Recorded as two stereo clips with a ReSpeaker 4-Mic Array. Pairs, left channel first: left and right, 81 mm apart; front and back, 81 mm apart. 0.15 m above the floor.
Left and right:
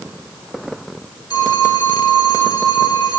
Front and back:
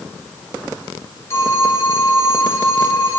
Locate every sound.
1.3 s a phone ringing: 55° left, 4 m